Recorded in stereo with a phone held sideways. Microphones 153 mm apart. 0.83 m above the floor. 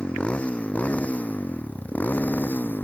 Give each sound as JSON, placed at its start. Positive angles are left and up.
{"t": 0.0, "sound": "a motorcycle", "side_deg": 5}